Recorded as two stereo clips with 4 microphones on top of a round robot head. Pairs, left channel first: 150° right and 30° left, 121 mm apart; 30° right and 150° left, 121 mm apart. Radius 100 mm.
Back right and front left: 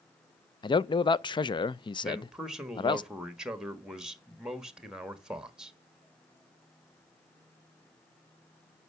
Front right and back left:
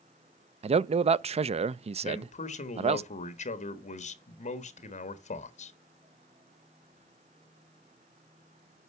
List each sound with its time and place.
0.6 s a man speaking: 165° left, 0.5 m
2.0 s a man speaking: 55° right, 1.5 m